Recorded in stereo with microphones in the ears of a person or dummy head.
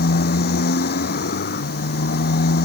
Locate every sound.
0.0 s a motorcycle: 55° left (ahead or behind)